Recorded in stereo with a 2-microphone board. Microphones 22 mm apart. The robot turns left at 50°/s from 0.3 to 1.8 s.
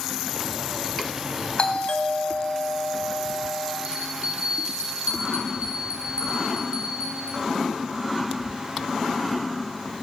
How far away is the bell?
About 4 m.